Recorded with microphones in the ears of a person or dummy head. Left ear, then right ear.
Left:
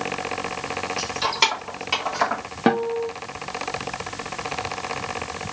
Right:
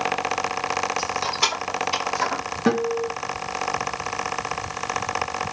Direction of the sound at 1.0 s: 70° left (ahead or behind).